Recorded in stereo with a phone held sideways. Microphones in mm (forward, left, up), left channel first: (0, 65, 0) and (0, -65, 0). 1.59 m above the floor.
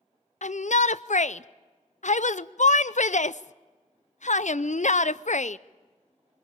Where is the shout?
65° left (ahead or behind), 0.6 m.